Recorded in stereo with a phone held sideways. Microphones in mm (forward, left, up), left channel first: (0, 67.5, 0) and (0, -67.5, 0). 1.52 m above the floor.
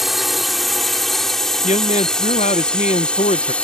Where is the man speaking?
60° left (ahead or behind).